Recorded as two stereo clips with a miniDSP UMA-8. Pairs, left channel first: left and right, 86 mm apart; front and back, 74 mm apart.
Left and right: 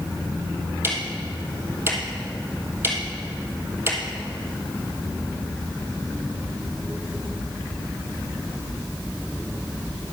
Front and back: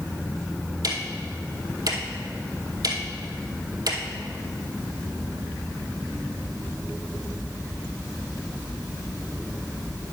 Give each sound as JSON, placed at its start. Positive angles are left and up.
{"t": 0.8, "sound": "ticking", "azimuth_deg": -150, "distance_m": 2.0}